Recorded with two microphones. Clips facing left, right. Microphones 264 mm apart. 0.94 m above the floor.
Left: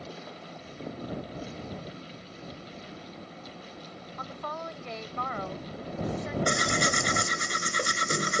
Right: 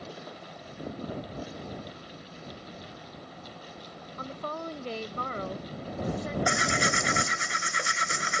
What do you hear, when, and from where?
4.2 s a woman speaking: 35° right (ahead or behind)
6.5 s tearing paper: 40° left (ahead or behind)